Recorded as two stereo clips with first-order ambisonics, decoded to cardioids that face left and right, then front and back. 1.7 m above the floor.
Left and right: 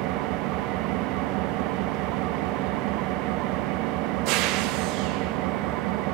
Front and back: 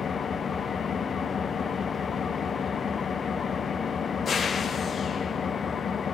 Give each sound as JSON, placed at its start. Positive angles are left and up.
{"t": 0.0, "sound": "an engine running", "azimuth_deg": -70, "distance_m": 1.0}